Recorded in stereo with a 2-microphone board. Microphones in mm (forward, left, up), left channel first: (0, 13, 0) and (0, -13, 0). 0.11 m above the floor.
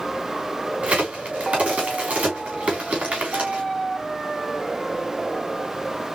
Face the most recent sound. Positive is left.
turn(degrees=-65)  # may be behind; listen again after turning